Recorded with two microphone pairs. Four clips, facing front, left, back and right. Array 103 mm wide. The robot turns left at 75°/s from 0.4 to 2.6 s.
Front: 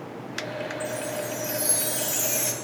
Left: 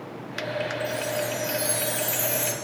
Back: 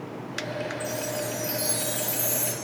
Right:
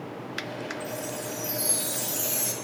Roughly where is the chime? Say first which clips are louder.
Left 6 dB, even; behind left.